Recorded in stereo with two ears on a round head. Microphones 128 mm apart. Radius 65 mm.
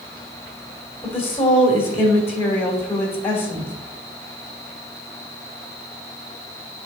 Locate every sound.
1.0 s a woman speaking: 15° left (ahead or behind), 2 m